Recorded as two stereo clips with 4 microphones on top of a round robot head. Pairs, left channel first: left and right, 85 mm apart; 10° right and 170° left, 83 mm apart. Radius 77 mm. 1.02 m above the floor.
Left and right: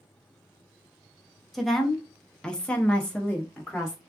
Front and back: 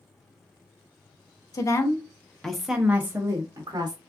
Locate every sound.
1.5 s a woman speaking: straight ahead, 0.9 m; by 4.0 s 160° left, 1.0 m